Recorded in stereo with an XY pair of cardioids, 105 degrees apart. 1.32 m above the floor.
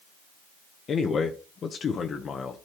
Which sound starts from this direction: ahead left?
A man speaking, at 0.9 s.